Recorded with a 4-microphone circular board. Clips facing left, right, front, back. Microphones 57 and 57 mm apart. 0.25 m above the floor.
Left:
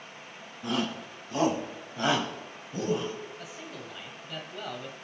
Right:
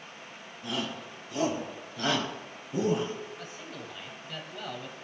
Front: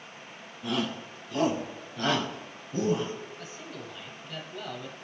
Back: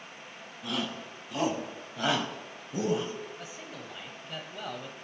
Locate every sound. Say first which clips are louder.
0.6 s a shout: left 4 dB, front 3 dB; 90° left, 2.5 m; by 3.1 s 125° right, 1.6 m
3.4 s a man speaking: even, front 1 dB; 160° left, 1.3 m